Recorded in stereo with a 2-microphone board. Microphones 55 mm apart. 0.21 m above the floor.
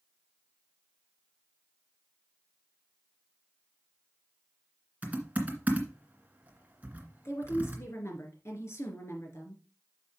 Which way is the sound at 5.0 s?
30° right (ahead or behind).